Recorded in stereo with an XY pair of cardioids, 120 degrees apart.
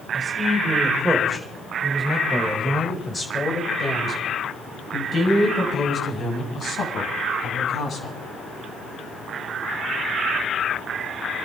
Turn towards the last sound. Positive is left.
turn(degrees=50)